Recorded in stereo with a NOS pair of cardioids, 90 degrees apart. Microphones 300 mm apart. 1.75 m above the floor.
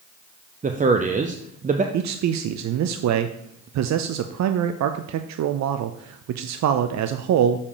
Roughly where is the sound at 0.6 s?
Ahead right.